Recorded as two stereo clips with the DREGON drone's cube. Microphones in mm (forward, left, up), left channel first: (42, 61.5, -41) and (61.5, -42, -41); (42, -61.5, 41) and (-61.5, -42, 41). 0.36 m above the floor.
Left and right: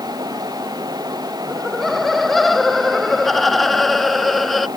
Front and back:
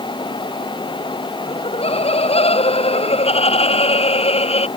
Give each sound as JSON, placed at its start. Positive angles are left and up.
{"t": 1.5, "sound": "laughter", "azimuth_deg": 10}